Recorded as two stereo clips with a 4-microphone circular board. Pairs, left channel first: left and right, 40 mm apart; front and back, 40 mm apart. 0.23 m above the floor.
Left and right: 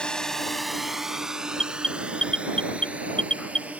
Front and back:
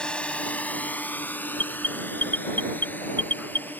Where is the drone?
45° left; by 3.8 s 40° right.